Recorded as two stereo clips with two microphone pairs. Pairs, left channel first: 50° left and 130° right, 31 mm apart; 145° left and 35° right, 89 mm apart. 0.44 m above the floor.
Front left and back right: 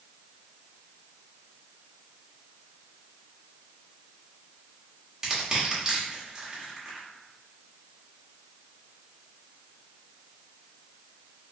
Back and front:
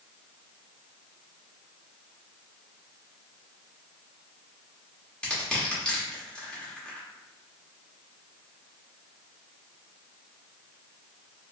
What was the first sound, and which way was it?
Crushing, 150° right.